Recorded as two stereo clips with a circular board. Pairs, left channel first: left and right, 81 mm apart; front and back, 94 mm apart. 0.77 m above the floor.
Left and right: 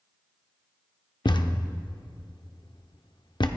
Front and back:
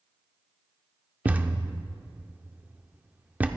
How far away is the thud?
About 0.6 m.